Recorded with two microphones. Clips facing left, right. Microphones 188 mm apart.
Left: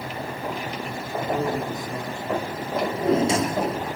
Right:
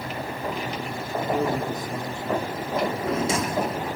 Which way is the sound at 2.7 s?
30° left (ahead or behind).